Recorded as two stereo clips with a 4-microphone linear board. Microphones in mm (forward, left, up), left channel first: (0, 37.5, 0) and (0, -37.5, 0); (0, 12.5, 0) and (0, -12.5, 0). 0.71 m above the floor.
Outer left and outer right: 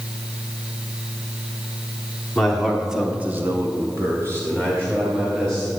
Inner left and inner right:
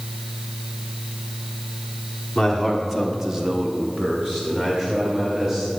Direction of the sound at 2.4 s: 5° left (ahead or behind).